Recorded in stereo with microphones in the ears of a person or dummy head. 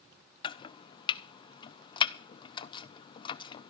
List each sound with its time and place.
0.4 s chopping: 30° left (ahead or behind), 0.5 m